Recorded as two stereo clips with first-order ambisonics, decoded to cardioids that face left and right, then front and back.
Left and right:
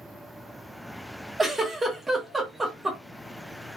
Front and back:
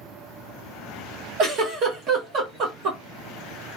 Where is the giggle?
165° right, 0.8 m.